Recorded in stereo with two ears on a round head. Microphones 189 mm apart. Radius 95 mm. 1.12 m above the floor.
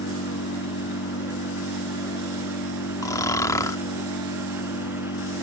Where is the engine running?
70° left (ahead or behind).